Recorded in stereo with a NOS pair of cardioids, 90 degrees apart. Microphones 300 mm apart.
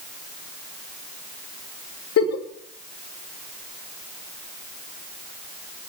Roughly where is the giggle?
Ahead left.